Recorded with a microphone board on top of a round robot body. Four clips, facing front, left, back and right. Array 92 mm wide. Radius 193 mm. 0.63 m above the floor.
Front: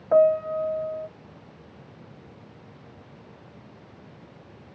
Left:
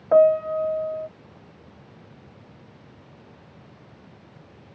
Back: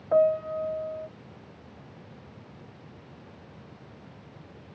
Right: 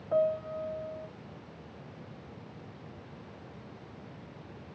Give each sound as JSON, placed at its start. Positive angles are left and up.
{"t": 0.1, "sound": "a piano", "azimuth_deg": 70}